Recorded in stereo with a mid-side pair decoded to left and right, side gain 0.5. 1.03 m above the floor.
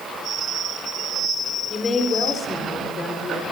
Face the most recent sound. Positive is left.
turn(degrees=35)